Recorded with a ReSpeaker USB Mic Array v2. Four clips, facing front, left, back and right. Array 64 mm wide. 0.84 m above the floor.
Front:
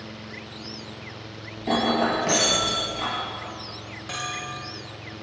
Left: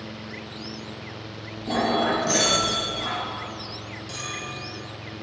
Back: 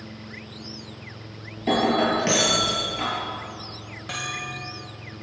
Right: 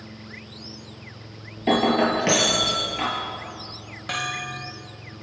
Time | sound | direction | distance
1.6 | breaking glass | 105° right | 8 m
4.1 | a bell | 95° right | 2 m